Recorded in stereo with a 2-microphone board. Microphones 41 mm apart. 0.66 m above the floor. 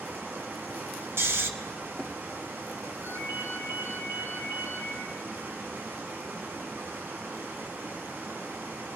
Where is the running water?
65° right (ahead or behind), 3.5 m.